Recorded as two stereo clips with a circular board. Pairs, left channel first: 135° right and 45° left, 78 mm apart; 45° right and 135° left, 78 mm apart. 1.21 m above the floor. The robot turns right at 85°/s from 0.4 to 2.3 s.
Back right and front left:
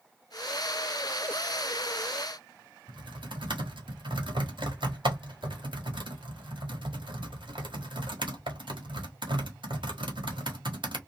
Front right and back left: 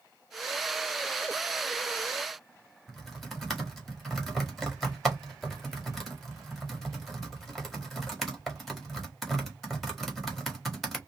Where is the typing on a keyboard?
45° left, 1.4 m.